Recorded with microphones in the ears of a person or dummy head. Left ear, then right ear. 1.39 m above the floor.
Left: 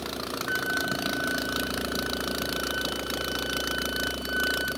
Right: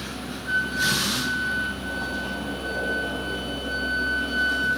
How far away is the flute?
About 2 m.